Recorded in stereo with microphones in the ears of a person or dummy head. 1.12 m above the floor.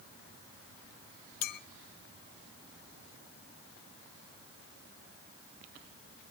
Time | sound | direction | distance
1.4 | a clink | 65° left (ahead or behind) | 0.5 m